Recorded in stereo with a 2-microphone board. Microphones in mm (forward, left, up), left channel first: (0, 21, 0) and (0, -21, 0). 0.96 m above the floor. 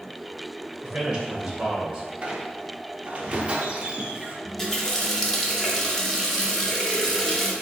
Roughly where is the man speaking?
Centre.